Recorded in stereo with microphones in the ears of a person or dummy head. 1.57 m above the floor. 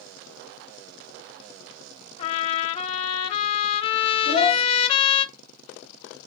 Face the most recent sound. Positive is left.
turn(degrees=-75)  # may be behind; listen again after turning